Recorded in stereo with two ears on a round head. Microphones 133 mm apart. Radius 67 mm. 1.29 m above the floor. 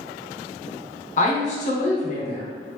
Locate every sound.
1.2 s a woman speaking: 50° left (ahead or behind), 0.8 m